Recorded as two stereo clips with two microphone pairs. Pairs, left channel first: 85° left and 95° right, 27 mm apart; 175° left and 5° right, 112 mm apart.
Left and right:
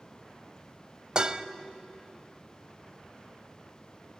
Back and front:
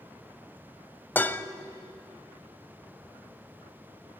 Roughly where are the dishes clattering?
Behind right.